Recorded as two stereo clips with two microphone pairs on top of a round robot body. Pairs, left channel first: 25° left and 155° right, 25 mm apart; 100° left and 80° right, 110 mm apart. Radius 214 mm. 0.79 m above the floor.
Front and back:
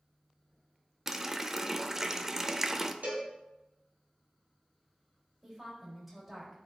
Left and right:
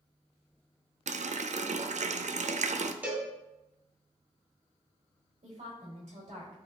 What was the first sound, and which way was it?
A running tap, 80° right.